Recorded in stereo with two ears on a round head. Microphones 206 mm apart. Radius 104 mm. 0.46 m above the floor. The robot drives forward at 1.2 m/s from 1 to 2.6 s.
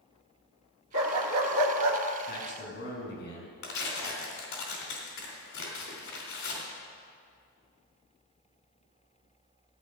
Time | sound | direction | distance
0.9 | a dog barking | 60° right (ahead or behind) | 1.9 m
2.3 | a man speaking | 45° left (ahead or behind) | 5.5 m
3.6 | tearing paper | 60° left (ahead or behind) | 3.5 m